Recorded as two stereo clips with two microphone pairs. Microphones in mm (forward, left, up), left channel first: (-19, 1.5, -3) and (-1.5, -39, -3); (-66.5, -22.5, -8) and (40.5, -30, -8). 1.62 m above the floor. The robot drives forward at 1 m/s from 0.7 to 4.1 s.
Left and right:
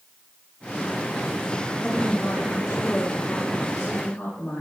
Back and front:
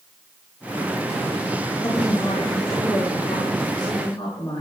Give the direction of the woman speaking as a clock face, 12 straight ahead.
5 o'clock.